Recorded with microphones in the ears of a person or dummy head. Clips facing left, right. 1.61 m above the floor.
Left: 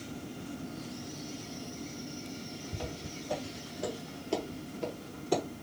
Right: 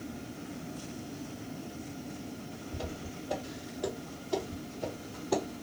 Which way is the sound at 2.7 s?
20° left (ahead or behind).